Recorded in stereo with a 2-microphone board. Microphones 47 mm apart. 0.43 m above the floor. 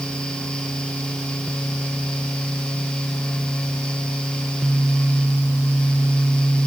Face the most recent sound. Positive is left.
No sound to turn to.